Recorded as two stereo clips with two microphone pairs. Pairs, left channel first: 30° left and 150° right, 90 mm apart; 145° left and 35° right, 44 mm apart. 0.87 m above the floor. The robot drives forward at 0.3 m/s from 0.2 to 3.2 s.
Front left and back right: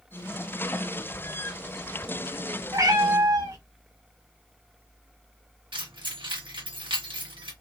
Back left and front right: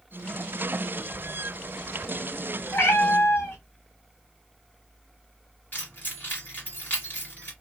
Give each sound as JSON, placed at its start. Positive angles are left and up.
{"t": 2.7, "sound": "a cat meowing", "azimuth_deg": 165, "distance_m": 1.6}
{"t": 5.7, "sound": "keys jangling", "azimuth_deg": -170, "distance_m": 1.2}